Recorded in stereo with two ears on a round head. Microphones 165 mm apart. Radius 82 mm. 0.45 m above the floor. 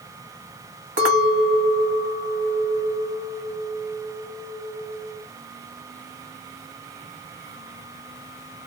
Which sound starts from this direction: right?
A clink, at 1.0 s.